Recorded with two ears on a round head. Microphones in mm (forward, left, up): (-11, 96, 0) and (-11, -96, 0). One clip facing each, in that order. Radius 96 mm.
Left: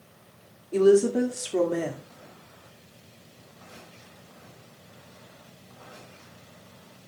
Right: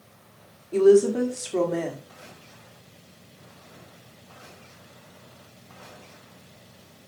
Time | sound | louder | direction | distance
0.7 | a woman speaking | right 2 dB | 5° left (ahead or behind) | 1.7 m